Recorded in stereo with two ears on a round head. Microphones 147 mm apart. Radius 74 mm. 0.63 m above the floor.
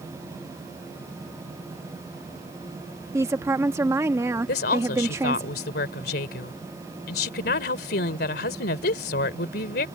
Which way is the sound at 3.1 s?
15° right (ahead or behind).